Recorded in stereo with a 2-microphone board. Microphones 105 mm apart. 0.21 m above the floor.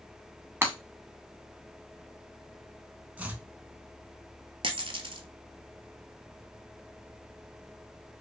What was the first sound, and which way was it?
Breaking glass, 25° right (ahead or behind).